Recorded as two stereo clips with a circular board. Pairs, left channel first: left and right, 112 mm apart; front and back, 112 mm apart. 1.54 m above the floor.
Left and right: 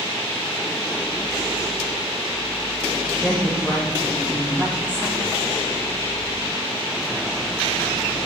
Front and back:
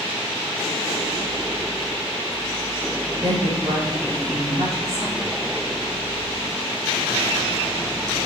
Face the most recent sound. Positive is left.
turn(degrees=165)